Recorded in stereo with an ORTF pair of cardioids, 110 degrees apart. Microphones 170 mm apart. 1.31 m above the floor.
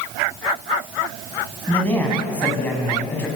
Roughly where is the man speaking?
Ahead.